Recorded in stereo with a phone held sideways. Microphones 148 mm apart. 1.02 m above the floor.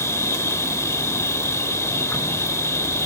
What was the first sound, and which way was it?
An insect, 20° left (ahead or behind).